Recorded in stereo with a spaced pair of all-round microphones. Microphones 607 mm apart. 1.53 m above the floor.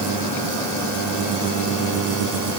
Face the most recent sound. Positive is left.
No sound to turn to.